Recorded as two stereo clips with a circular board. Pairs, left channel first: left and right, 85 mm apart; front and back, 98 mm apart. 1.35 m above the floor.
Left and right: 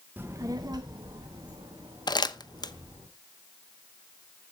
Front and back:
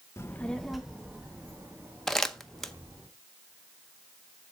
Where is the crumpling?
85° left, 0.7 m.